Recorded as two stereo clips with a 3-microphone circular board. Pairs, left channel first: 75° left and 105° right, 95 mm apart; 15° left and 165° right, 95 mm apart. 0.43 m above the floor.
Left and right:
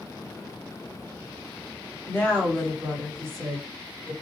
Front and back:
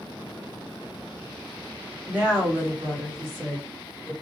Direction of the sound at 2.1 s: 130° left.